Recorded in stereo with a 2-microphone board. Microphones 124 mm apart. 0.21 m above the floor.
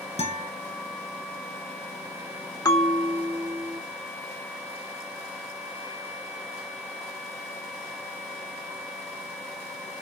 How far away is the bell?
About 0.6 m.